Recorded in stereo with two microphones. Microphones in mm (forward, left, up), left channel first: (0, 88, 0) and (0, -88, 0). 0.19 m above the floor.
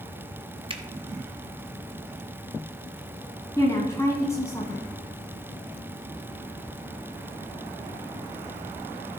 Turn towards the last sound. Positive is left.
turn(degrees=15)  # may be behind; listen again after turning